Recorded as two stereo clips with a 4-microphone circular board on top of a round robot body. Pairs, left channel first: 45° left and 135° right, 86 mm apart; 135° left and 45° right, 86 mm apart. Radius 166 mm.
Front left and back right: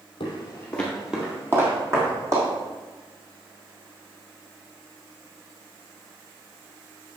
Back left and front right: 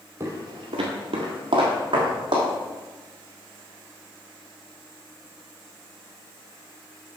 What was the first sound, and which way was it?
Footsteps, 15° left.